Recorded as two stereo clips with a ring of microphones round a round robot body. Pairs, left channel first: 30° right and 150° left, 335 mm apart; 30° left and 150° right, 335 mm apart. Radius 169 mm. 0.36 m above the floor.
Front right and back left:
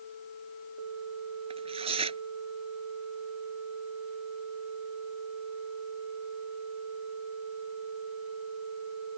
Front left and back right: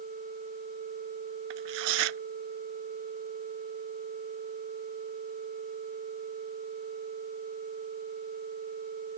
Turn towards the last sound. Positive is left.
turn(degrees=-135)